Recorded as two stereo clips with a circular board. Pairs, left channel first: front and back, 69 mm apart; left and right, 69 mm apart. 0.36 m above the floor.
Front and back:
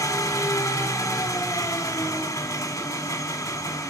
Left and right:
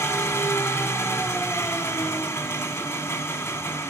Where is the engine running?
40° left, 0.8 m.